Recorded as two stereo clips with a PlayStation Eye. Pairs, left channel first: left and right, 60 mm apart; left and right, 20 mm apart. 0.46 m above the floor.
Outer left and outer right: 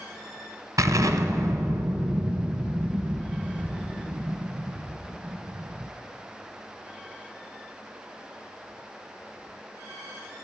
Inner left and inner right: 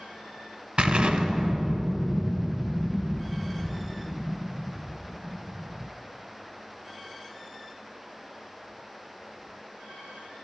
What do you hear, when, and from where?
0.8 s an explosion: 65° right (ahead or behind), 1.0 m